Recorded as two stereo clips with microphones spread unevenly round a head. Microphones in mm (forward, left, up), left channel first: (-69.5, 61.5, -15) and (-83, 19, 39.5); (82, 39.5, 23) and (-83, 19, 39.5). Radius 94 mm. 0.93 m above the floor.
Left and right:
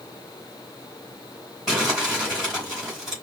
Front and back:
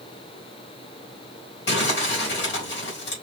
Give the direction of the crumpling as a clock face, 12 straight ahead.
1 o'clock.